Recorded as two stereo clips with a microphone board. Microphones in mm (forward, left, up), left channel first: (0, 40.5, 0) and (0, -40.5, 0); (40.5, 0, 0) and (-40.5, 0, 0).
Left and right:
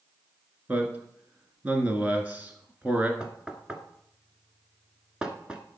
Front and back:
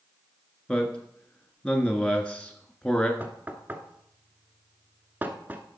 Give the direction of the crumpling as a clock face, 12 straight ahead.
I don't hear crumpling.